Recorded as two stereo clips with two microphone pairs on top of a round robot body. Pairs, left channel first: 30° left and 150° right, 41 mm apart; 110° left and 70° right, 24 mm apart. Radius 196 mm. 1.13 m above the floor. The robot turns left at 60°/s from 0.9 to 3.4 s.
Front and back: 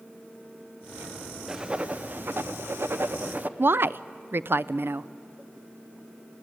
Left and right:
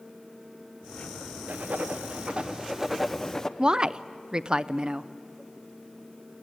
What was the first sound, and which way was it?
Writing, 75° right.